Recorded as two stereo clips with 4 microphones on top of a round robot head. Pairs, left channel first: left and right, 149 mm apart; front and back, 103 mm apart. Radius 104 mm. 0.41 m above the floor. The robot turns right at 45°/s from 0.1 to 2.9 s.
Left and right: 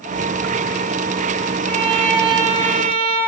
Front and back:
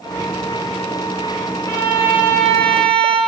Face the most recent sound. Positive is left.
turn(degrees=65)